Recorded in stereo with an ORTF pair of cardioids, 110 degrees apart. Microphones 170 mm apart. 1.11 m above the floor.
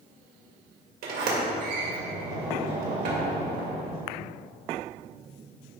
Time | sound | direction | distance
1.0 | a sliding door | 70° right | 2 m